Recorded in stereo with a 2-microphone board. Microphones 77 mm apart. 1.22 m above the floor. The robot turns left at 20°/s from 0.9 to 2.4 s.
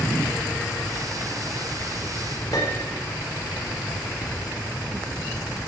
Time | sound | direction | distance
2.5 | a piano | 55° left (ahead or behind) | 3 m